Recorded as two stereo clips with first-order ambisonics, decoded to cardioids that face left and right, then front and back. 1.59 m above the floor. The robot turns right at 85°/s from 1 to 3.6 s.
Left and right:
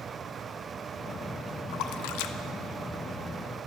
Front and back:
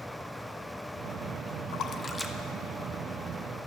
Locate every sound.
1.7 s a splash: 45° left, 0.6 m; by 2.4 s 100° left, 0.6 m